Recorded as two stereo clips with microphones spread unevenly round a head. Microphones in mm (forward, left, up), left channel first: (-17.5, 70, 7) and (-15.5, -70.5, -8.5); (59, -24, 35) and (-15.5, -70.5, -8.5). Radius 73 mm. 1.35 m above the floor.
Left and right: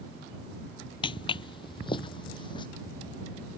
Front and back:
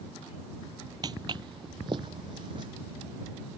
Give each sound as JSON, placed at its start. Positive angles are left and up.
{"t": 1.0, "sound": "footsteps", "azimuth_deg": 130}